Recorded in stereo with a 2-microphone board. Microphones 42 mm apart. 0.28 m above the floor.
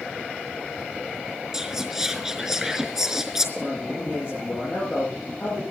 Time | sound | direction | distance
1.5 | whispering | 5° right (ahead or behind) | 4.5 m
3.6 | a man speaking | 30° left (ahead or behind) | 10 m